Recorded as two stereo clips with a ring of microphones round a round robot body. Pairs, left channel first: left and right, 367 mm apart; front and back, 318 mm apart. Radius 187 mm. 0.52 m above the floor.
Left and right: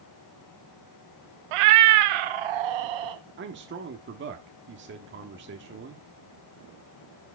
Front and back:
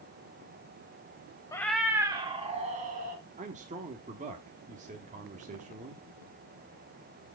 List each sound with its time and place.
1.5 s a cat meowing: 80° right, 0.6 m; by 3.2 s 110° right, 1.8 m
3.4 s a man speaking: 125° right, 1.1 m